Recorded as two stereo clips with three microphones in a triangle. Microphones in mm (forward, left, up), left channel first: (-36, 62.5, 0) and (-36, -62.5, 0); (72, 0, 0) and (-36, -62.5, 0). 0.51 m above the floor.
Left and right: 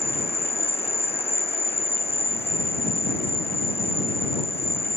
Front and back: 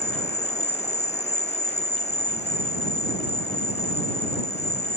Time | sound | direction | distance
0.0 | an insect | 55° left | ?